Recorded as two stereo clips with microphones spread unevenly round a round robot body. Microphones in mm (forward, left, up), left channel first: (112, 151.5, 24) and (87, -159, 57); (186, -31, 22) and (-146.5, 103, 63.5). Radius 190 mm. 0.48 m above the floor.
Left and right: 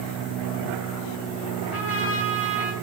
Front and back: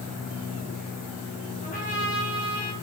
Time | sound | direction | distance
1.6 | a trumpet | 45° left | 5 m